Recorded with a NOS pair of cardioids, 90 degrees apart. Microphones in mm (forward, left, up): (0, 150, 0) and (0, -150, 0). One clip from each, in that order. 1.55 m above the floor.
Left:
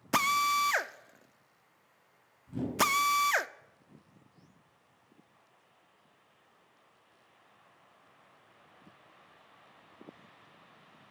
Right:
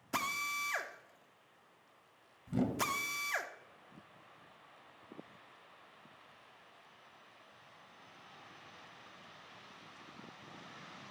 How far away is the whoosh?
About 1.9 m.